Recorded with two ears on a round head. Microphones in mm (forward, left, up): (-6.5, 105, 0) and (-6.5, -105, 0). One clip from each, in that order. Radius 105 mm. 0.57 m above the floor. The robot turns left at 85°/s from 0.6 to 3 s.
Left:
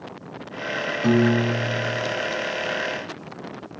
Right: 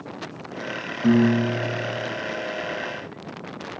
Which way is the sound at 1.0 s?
145° left.